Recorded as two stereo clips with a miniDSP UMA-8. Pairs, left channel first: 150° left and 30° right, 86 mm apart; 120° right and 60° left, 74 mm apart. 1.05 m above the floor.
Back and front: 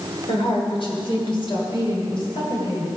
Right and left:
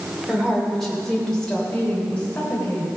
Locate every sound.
0.3 s a woman speaking: 145° left, 3 m; by 2.9 s 175° left, 4 m